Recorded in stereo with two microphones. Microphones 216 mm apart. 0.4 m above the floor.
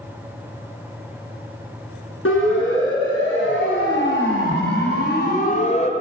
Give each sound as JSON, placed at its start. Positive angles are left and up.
{"t": 2.2, "sound": "a siren", "side_deg": 75, "distance_m": 7.0}